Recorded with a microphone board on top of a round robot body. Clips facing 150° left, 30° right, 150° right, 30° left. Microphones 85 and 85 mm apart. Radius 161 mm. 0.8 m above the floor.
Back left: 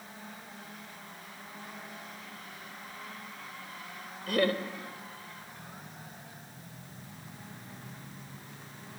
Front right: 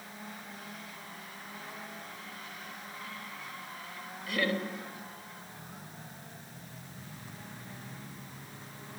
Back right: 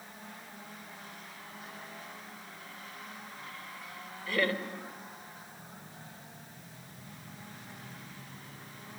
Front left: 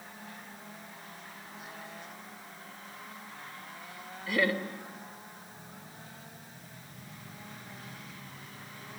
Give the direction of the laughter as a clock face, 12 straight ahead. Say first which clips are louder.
Back left 4 dB, front left 2 dB; 8 o'clock.